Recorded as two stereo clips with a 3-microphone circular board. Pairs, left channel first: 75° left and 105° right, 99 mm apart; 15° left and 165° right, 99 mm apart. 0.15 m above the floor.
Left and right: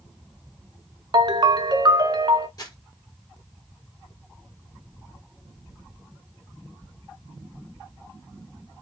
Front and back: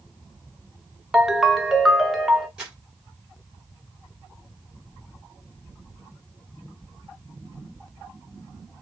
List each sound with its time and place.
1.1 s a ringtone: 80° right, 0.7 m
2.6 s crumpling: 115° left, 3 m